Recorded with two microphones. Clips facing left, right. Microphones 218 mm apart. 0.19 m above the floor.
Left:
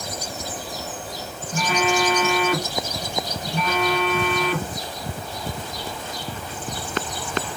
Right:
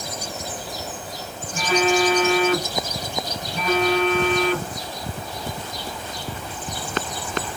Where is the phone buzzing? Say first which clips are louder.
Right 3 dB; 45° left (ahead or behind), 1.6 m.